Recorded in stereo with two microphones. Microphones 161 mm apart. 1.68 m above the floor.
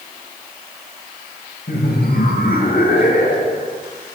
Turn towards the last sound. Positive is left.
turn(degrees=55)  # may be behind; listen again after turning